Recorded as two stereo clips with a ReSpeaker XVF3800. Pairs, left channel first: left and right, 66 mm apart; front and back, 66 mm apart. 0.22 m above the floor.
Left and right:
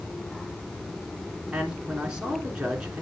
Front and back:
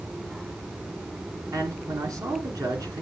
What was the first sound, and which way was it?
A man speaking, 165° right.